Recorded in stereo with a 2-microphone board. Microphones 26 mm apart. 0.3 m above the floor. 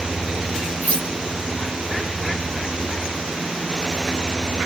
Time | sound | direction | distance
0.8 | cutlery clinking | 65° left (ahead or behind) | 2 m